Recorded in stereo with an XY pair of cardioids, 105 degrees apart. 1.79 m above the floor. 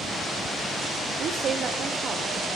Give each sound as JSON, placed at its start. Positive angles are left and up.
{"t": 1.2, "sound": "a woman speaking", "azimuth_deg": -60, "distance_m": 1.3}